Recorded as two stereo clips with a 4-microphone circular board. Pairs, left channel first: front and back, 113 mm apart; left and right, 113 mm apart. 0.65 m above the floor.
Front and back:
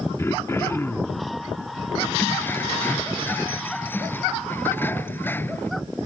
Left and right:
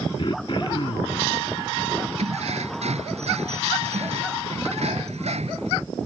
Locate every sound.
0.2 s throat clearing: 60° left
2.2 s keys jangling: 70° right